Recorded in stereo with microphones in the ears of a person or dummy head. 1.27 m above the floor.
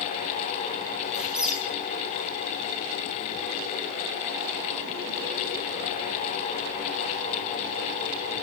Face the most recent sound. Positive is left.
turn(degrees=-5)  # may be behind; listen again after turning